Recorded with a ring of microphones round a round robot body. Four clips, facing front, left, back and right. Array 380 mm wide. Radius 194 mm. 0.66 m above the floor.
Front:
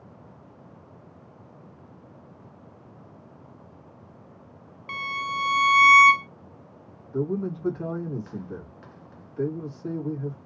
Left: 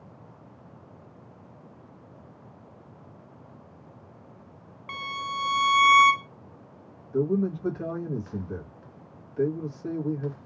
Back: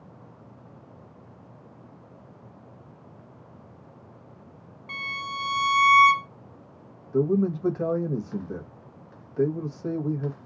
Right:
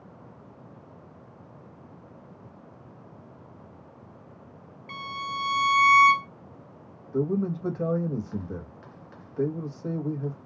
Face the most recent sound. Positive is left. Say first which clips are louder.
# left 1 dB, back 5 dB
turn(degrees=-150)